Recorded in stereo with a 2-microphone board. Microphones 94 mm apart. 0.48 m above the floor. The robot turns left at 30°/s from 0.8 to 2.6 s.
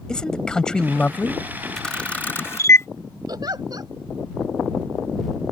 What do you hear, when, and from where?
0.1 s a man speaking: 10° left (ahead or behind); by 1.4 s 25° left (ahead or behind)
1.8 s a camera shutter: 5° left (ahead or behind); by 2.9 s 30° left (ahead or behind)
3.3 s a giggle: 45° right (ahead or behind)